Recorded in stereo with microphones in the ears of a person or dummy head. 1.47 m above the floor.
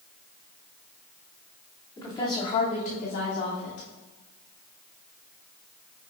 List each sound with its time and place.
2.0 s a woman speaking: 20° left (ahead or behind), 3 m; by 3.9 s 65° left (ahead or behind), 4 m